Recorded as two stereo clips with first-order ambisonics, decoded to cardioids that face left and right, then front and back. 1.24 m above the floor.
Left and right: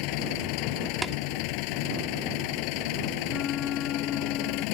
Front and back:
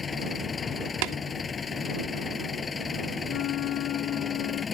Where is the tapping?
170° right.